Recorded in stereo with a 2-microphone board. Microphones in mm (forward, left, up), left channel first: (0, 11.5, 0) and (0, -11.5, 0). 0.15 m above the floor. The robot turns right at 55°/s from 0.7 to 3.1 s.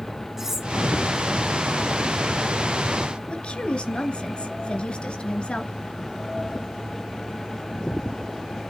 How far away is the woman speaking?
About 1.7 m.